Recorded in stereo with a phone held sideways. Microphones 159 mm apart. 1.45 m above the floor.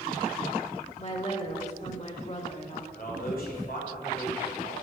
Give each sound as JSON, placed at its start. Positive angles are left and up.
{"t": 1.0, "sound": "a woman speaking", "side_deg": 45, "distance_m": 2.5}
{"t": 2.9, "sound": "a man speaking", "side_deg": 65, "distance_m": 5.5}